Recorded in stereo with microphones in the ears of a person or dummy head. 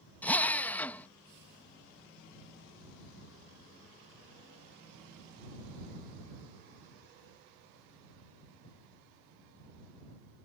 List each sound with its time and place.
0.2 s a drill: 10° left (ahead or behind)